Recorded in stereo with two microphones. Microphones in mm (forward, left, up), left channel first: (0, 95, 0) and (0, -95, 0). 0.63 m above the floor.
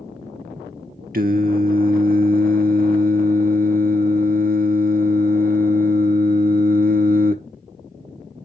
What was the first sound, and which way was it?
Singing, 50° right (ahead or behind).